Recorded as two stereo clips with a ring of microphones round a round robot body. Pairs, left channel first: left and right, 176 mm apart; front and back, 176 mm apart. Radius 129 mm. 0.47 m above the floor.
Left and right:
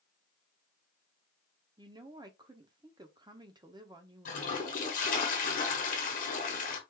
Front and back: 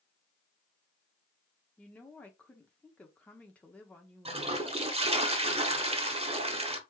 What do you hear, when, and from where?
1.8 s a woman speaking: 70° right, 0.7 m
4.2 s a toilet flushing: 130° left, 1.0 m